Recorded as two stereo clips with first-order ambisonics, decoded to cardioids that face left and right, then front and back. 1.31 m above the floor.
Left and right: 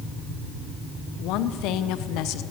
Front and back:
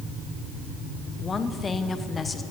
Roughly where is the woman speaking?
Left.